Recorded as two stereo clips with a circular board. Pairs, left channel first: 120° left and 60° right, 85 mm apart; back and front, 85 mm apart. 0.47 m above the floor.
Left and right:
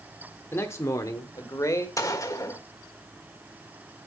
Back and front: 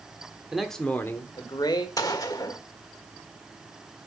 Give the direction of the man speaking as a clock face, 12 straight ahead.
9 o'clock.